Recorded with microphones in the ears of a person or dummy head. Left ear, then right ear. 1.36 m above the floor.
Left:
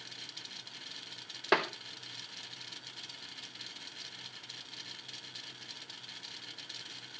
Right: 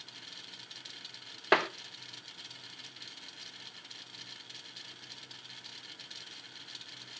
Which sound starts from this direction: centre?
Tapping, at 1.5 s.